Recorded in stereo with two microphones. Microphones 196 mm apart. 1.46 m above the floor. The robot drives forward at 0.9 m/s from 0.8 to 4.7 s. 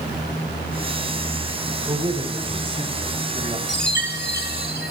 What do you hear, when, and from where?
1.9 s a man speaking: 25° right (ahead or behind), 6 m; by 3.6 s 30° right (ahead or behind), 4.5 m
3.7 s a chime: 65° left (ahead or behind), 3.5 m; by 4.9 s 50° left (ahead or behind), 4 m